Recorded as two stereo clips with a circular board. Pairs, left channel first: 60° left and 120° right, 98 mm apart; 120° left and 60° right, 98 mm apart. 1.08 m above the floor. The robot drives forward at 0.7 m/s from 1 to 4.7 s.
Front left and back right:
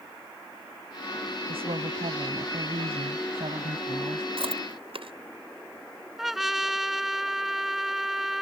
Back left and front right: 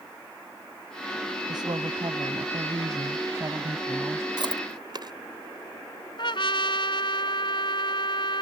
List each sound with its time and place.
1.5 s a woman speaking: 105° right; by 4.3 s 120° right
4.4 s chewing: 100° right
6.2 s a trumpet: 150° left